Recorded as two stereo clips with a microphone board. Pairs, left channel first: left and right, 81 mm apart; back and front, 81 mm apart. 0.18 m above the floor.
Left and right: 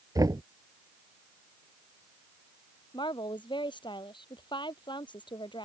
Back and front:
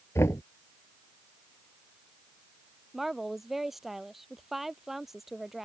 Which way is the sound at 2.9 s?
85° left.